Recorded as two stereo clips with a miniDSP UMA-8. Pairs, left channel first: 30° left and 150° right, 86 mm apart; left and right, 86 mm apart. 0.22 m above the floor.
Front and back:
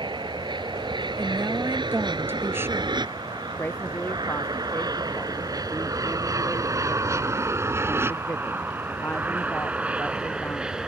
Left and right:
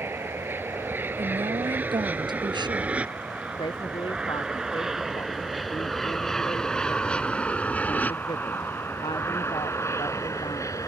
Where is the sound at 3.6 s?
100° left.